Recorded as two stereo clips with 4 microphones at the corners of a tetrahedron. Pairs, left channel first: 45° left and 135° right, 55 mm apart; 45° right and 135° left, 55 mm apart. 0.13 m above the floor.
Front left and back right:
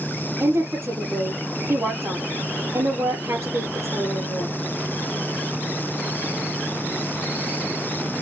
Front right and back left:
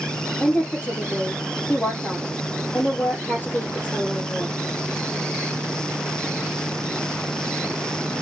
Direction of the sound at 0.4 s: 105° right.